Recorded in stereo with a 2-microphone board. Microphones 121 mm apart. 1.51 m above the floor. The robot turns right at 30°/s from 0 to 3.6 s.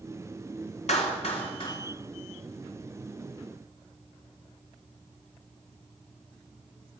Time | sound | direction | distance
0.9 | a clap | 65° left (ahead or behind) | 3 m